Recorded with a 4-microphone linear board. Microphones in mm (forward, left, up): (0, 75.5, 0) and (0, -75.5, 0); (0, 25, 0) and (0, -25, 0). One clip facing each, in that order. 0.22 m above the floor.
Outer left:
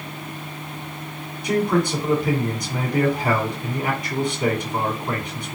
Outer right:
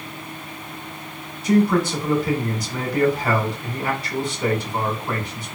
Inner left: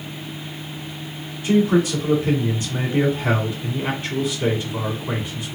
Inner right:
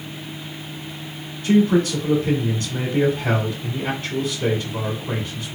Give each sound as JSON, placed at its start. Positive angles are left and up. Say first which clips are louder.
{"t": 1.4, "sound": "a man speaking", "louder": "outer right 3 dB, inner right 1 dB", "side_deg": 15, "distance_m": 2.0}